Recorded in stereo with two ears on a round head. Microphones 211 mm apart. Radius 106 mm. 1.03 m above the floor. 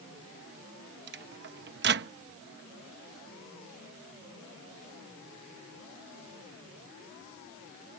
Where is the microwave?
45° right (ahead or behind).